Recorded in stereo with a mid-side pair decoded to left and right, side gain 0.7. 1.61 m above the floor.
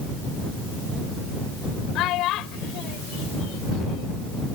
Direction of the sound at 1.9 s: 55° left.